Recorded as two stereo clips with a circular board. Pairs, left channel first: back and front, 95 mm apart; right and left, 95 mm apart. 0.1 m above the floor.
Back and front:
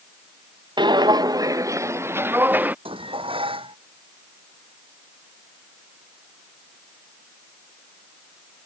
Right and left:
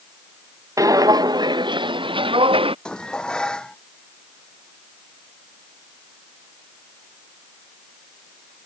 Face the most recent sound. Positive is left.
turn(degrees=-10)